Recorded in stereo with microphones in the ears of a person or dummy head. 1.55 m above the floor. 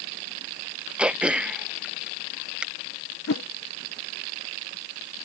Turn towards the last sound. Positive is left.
turn(degrees=75)  # may be behind; listen again after turning